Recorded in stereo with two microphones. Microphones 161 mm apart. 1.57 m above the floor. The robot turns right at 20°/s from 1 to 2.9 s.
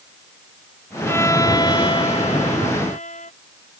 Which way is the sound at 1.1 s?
15° left.